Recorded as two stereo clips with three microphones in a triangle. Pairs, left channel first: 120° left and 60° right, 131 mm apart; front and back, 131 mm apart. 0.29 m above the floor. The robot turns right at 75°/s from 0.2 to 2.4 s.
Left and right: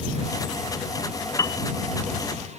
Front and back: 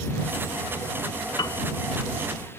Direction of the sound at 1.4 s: 55° left.